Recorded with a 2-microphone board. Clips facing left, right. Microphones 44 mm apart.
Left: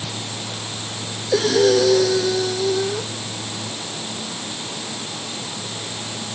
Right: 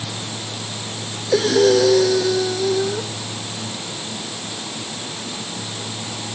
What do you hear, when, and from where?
1.3 s breathing: 5° right (ahead or behind)